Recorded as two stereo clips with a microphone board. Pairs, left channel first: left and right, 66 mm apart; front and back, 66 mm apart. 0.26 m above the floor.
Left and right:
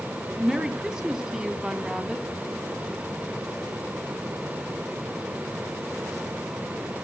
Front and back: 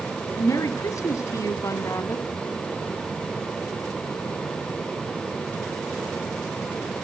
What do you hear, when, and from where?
0.4 s a woman speaking: 10° right, 2 m